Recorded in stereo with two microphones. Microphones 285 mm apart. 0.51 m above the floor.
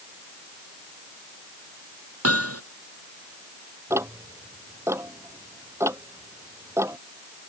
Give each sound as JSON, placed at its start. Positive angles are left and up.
{"t": 2.2, "sound": "hammering", "side_deg": -60}
{"t": 3.9, "sound": "ticking", "side_deg": -10}